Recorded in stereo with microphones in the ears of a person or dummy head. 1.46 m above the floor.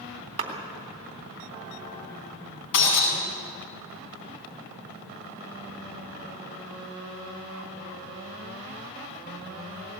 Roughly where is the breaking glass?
Left.